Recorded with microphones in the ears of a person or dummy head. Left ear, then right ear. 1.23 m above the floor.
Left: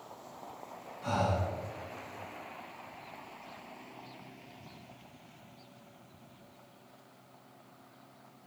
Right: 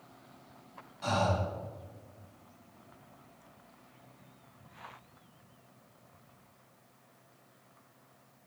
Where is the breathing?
45° right (ahead or behind), 1.9 m.